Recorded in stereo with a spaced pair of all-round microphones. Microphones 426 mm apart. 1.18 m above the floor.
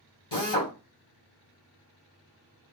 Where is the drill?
70° left (ahead or behind), 2 m.